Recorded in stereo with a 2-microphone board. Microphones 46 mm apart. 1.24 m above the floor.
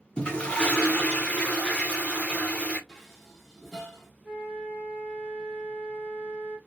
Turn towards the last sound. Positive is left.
turn(degrees=-10)  # may be behind; listen again after turning